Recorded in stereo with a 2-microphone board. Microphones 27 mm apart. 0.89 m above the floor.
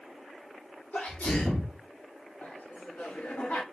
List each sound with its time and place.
0.9 s a sneeze: 80° left, 1.7 m
2.4 s laughter: 75° left (ahead or behind), 1.4 m